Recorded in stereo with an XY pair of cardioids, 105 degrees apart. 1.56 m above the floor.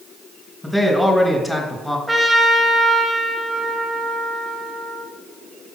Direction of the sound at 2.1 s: 5° right.